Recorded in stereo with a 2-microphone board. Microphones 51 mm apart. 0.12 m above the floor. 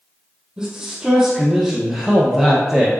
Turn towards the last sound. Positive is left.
turn(degrees=-5)  # may be behind; listen again after turning